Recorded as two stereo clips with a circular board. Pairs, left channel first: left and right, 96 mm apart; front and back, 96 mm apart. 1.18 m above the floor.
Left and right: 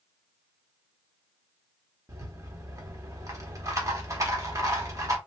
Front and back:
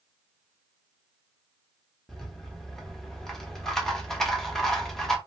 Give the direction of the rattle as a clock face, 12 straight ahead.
3 o'clock.